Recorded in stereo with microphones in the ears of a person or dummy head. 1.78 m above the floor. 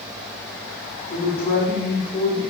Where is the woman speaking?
30° left (ahead or behind), 4 m.